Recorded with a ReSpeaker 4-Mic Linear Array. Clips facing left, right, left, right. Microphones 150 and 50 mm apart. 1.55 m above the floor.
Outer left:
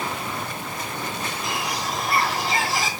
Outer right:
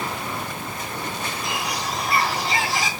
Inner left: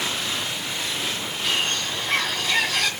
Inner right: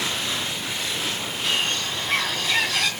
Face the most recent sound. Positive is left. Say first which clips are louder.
# even, even
turn(degrees=0)  # may be behind; listen again after turning